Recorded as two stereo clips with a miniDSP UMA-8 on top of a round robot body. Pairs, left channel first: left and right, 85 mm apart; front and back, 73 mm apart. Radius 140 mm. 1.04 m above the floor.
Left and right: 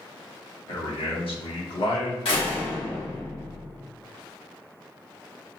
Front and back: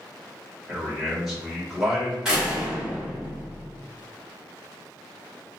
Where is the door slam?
100° left, 1.5 m.